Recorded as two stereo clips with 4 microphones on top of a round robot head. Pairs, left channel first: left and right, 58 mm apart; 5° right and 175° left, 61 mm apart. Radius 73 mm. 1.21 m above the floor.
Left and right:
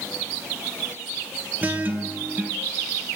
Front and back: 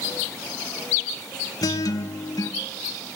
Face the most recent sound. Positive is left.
turn(degrees=-25)